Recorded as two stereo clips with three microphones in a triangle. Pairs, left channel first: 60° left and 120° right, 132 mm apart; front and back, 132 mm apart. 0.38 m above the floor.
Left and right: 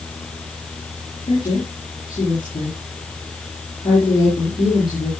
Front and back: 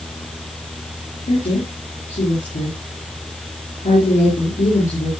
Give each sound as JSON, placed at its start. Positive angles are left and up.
{"t": 1.3, "sound": "a woman speaking", "azimuth_deg": 5, "distance_m": 8.0}